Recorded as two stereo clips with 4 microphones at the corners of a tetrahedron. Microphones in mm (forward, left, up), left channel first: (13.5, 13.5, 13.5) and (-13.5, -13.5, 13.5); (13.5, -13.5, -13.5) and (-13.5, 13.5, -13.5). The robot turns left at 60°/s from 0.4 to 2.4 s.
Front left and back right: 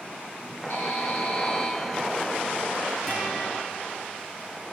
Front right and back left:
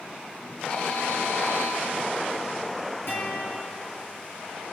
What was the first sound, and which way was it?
A buzzer, 20° left.